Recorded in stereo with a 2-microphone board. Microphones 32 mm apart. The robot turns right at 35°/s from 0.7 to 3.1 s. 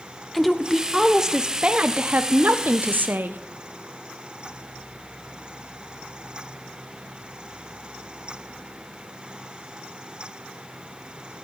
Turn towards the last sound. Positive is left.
turn(degrees=-100)